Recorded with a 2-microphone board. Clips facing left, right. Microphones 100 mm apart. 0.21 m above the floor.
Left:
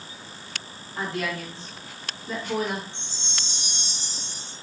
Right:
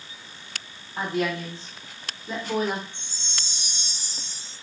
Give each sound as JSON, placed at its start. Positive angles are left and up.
{"t": 1.0, "sound": "a woman speaking", "side_deg": -15, "distance_m": 1.3}
{"t": 2.9, "sound": "a chime", "side_deg": -10, "distance_m": 1.5}